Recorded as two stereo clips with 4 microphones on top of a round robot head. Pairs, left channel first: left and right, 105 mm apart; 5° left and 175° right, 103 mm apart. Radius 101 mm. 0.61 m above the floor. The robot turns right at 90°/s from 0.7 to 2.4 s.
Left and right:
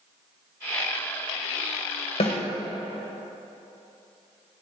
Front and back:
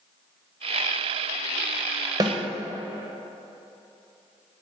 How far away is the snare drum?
About 1.3 m.